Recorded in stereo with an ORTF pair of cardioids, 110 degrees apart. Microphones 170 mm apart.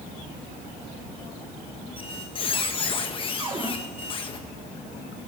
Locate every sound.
2.0 s a squeak: 30° left, 1.3 m
3.4 s a cupboard door: 30° right, 2 m